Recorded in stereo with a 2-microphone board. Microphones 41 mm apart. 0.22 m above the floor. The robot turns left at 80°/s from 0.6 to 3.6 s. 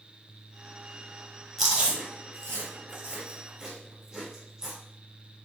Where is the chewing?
Centre (ahead or behind), 1.7 m; by 4.8 s 20° right (ahead or behind), 1.7 m.